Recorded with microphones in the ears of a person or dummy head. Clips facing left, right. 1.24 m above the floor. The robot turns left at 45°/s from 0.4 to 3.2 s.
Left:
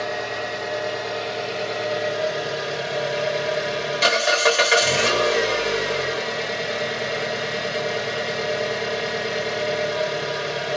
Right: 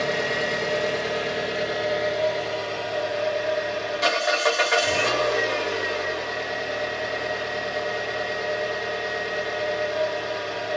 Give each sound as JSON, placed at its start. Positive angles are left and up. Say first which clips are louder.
{"t": 0.0, "sound": "an engine running", "louder": "right 2 dB", "azimuth_deg": -110, "distance_m": 1.2}